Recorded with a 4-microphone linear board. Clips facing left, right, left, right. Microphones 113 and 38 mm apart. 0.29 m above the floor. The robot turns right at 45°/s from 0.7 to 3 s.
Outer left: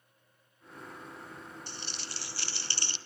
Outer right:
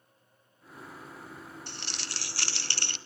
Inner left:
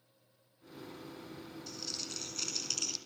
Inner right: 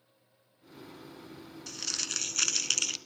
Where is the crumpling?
115° right, 0.7 m; by 3.0 s 60° right, 0.7 m.